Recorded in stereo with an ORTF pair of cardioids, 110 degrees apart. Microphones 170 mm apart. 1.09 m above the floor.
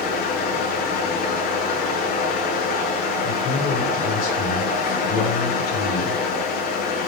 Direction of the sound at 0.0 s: 60° left.